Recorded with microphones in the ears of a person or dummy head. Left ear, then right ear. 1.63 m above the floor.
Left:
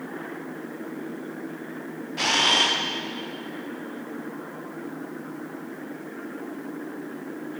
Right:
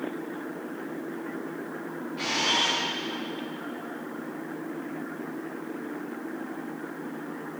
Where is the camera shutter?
40° left (ahead or behind), 0.6 m.